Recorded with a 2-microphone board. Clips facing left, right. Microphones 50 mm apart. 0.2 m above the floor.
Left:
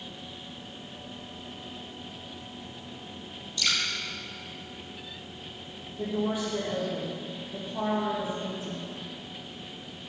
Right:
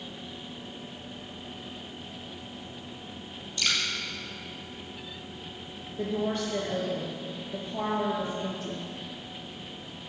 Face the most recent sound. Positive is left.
turn(degrees=-60)  # may be behind; listen again after turning